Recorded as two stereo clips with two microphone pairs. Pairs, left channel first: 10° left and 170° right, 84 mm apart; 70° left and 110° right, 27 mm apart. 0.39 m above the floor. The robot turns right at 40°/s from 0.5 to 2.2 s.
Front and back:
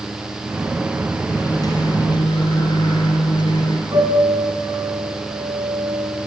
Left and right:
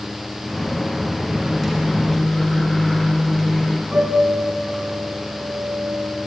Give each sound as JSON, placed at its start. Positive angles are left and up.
{"t": 1.3, "sound": "a microwave", "azimuth_deg": -45, "distance_m": 4.0}
{"t": 3.9, "sound": "a piano", "azimuth_deg": -140, "distance_m": 4.5}